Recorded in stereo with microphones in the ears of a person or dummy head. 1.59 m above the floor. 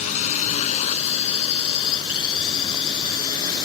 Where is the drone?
40° left (ahead or behind); by 3.7 s 25° left (ahead or behind).